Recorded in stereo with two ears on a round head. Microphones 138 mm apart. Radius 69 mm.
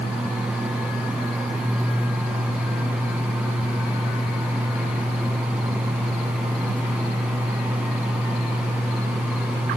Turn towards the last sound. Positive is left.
No sound to turn to.